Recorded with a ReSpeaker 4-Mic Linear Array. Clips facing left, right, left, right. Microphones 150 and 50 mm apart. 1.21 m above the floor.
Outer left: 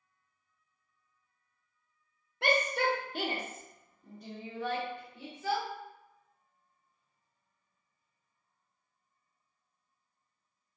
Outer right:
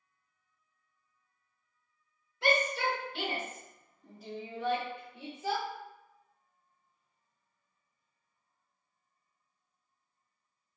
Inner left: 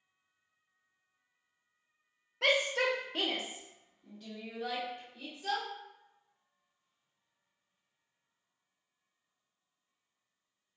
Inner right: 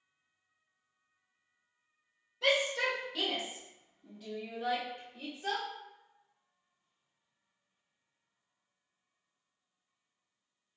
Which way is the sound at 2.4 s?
60° left (ahead or behind).